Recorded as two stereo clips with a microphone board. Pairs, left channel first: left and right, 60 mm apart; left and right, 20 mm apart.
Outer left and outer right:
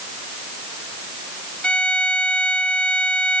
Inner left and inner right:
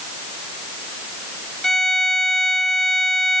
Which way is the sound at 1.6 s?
20° left (ahead or behind).